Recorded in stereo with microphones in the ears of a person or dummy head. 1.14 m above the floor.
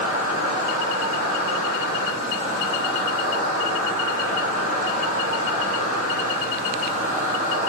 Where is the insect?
55° left (ahead or behind), 2 m.